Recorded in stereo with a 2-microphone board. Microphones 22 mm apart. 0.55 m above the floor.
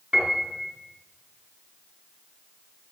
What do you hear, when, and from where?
0.1 s a piano: 55° right (ahead or behind), 3.5 m